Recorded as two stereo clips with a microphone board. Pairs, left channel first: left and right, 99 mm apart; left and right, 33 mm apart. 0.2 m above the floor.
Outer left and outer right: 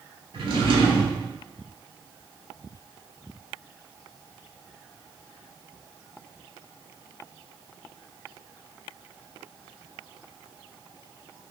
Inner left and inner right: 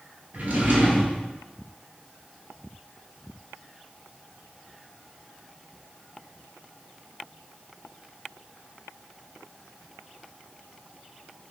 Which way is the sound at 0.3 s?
70° right (ahead or behind).